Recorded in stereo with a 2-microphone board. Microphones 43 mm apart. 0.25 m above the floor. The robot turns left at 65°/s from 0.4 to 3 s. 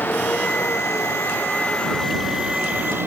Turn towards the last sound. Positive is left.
turn(degrees=-60)  # may be behind; listen again after turning